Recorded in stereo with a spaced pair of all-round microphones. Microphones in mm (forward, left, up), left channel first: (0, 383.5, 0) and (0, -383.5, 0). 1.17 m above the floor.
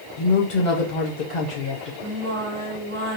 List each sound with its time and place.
0.2 s a woman speaking: 70° left (ahead or behind), 0.9 m
2.0 s singing: 70° right (ahead or behind), 1.8 m